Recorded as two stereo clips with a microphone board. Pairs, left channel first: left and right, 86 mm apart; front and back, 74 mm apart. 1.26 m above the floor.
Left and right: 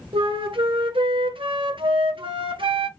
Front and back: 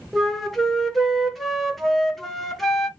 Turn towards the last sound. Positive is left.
turn(degrees=-85)